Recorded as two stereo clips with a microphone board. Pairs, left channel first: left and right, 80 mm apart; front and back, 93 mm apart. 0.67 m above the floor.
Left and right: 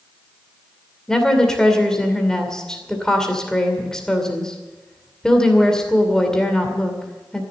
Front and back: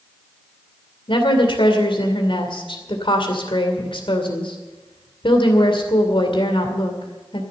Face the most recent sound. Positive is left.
turn(degrees=10)